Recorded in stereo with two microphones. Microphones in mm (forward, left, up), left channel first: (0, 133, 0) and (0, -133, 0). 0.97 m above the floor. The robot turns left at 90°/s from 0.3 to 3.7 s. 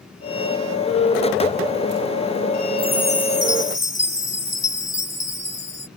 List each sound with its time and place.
2.8 s a chime: 170° left; by 5.9 s 85° left